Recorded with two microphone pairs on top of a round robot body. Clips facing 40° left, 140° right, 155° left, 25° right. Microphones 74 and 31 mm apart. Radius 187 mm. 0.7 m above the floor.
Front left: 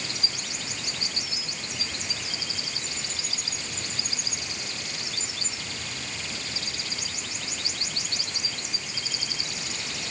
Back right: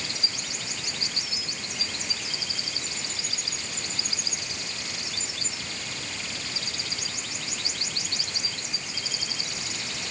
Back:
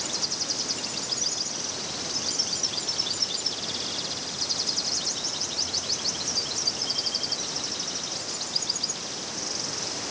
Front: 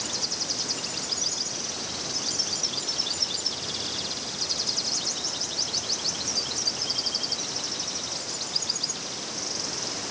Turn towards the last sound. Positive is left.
No sound to turn to.